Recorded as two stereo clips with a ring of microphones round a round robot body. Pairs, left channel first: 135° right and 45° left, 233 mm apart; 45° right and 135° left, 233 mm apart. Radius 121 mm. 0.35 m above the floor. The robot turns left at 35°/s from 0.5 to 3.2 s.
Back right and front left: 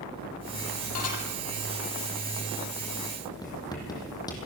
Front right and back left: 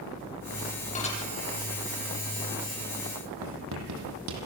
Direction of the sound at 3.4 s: 150° left.